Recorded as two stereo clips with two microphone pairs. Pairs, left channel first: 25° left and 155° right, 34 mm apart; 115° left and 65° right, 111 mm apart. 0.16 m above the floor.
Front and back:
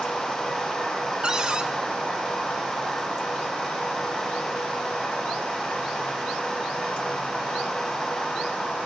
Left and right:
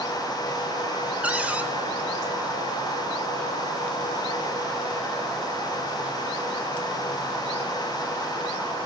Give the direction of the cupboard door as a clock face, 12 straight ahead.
4 o'clock.